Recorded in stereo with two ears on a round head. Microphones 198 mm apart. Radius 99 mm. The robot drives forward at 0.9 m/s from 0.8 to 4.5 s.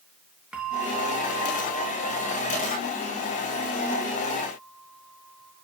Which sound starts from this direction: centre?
A bell, at 0.5 s.